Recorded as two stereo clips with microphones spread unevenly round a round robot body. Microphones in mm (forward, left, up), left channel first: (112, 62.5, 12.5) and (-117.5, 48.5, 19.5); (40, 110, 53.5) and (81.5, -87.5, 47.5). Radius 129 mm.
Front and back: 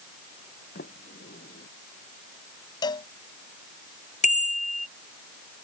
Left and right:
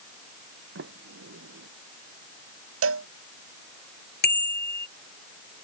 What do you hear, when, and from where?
0.8 s a sliding door: 55° right
2.8 s a cowbell: 70° right
4.2 s a bicycle bell: 65° left